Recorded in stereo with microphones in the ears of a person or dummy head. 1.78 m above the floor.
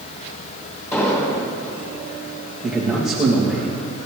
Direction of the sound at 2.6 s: 5° left (ahead or behind).